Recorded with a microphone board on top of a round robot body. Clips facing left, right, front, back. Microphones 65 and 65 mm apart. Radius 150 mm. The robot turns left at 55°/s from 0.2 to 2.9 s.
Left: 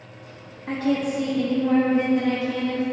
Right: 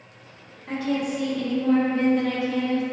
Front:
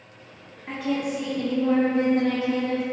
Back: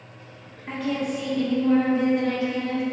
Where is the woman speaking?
95° left, 0.6 m; by 2.8 s 25° right, 0.6 m.